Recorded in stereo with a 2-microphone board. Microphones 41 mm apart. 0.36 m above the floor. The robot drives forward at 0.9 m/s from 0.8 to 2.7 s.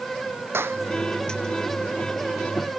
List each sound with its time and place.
0.5 s a clap: 85° right